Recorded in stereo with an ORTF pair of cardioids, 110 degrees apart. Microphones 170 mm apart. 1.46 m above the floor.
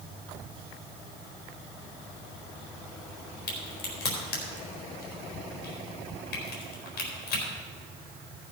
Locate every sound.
3.5 s a crack: 70° left, 4 m